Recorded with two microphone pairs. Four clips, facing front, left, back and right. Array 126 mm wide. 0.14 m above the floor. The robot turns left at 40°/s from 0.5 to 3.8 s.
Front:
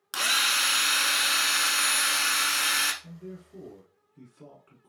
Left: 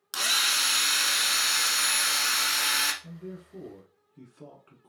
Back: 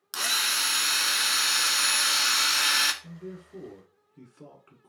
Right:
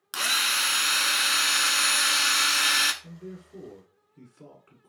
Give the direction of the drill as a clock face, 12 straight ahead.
1 o'clock.